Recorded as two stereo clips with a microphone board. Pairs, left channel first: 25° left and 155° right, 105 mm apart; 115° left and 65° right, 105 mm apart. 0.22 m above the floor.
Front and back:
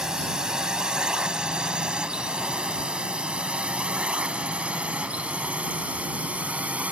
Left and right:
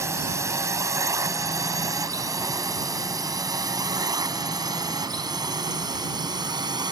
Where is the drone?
80° right; by 6.9 s 85° right.